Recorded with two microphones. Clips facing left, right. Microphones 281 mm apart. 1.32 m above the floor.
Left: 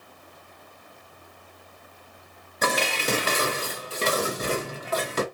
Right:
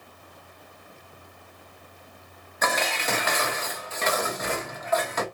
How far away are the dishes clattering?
About 0.6 m.